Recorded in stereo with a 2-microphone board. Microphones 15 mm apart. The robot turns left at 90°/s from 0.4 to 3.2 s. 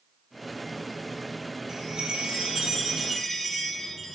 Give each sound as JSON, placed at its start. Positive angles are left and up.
{"t": 1.7, "sound": "a chime", "azimuth_deg": -35, "distance_m": 2.5}